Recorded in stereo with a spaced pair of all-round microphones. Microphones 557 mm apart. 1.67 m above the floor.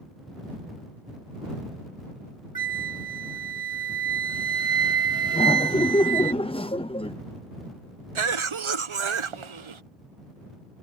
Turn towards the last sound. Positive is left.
turn(degrees=-60)  # may be behind; listen again after turning